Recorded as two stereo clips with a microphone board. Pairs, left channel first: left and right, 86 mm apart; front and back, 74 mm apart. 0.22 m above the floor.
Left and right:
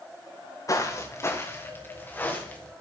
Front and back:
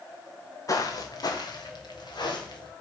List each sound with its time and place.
0.7 s footsteps: 40° left, 1.9 m; by 2.7 s 15° left, 3.5 m